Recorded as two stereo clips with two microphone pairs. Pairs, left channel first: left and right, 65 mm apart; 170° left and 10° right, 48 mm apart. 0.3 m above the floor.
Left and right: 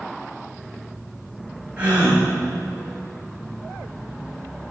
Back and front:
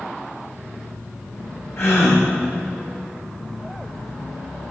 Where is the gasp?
165° right, 5 m.